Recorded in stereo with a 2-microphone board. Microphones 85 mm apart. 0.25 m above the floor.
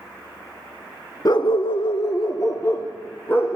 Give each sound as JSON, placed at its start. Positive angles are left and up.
{"t": 1.2, "sound": "a dog barking", "side_deg": 50, "distance_m": 0.8}